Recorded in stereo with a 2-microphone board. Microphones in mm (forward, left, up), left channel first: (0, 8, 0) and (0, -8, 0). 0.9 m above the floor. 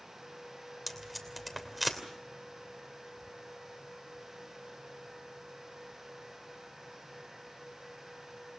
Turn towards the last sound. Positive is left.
turn(degrees=0)  # may be behind; listen again after turning